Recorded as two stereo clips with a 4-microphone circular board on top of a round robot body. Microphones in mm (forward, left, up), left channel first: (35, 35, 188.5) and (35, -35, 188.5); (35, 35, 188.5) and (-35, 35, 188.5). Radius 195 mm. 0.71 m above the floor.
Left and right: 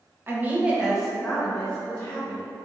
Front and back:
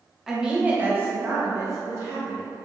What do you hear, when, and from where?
0.3 s a woman speaking: 100° right, 1.2 m; by 2.4 s 150° left, 1.8 m